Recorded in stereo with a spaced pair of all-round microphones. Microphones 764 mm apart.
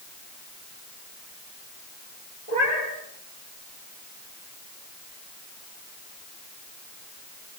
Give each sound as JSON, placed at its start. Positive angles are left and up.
{"t": 2.5, "sound": "a cat meowing", "side_deg": 50, "distance_m": 8.5}